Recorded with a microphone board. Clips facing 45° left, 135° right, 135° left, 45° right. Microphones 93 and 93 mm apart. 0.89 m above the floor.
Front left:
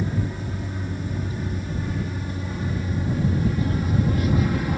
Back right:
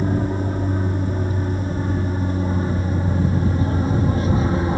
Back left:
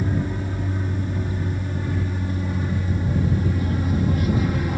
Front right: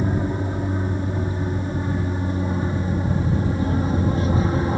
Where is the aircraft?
100° right; by 4.8 s 90° right.